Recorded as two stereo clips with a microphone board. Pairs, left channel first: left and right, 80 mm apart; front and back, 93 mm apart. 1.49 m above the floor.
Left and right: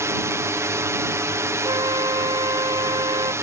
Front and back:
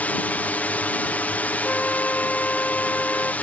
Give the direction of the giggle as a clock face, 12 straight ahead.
I don't hear a giggle.